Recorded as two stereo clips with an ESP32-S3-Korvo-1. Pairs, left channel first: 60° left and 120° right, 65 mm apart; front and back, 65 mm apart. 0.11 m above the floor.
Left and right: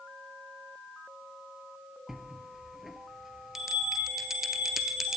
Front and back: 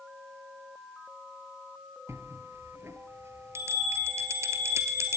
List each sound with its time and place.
2.1 s a bell: 155° left, 1.0 m